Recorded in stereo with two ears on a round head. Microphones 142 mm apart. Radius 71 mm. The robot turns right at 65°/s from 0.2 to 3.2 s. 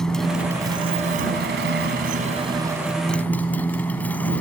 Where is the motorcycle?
175° left; by 4.4 s 10° left.